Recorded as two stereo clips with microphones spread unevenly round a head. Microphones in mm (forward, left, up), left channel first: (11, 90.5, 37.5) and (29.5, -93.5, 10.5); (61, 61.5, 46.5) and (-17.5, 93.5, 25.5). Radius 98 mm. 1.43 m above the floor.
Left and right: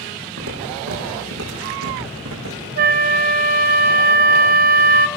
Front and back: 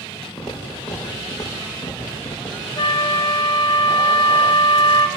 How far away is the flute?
About 0.9 m.